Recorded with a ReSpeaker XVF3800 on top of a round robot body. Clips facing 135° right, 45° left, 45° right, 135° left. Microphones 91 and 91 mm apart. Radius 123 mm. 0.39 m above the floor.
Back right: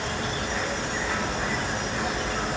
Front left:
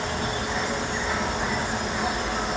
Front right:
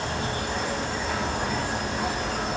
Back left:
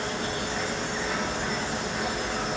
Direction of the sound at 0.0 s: 30° right.